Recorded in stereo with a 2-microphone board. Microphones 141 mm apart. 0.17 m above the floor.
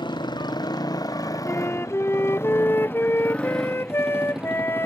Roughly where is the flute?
Centre.